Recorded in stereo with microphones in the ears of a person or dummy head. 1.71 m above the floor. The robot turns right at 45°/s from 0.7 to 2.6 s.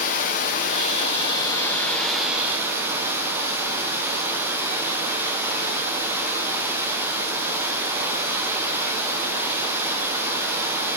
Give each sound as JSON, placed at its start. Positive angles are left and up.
{"t": 0.0, "sound": "running water", "azimuth_deg": 110, "distance_m": 0.7}